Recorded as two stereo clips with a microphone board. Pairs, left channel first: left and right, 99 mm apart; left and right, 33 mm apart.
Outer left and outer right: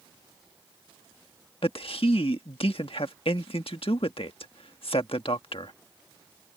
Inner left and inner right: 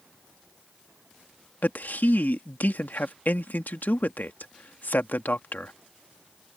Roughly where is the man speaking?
Left.